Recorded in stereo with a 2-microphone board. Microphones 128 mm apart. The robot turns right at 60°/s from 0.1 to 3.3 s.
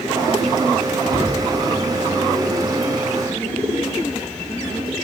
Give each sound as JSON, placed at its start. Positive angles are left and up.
{"t": 1.1, "sound": "a cupboard door", "side_deg": 5, "distance_m": 3.0}